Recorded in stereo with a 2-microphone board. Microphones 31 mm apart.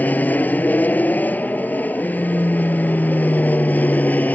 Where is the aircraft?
60° left (ahead or behind).